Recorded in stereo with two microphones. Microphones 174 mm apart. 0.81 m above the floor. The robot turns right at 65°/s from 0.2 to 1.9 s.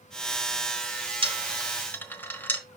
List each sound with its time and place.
1.2 s a dropped coin: 30° right (ahead or behind), 1.2 m; by 2.6 s 10° left (ahead or behind), 1.2 m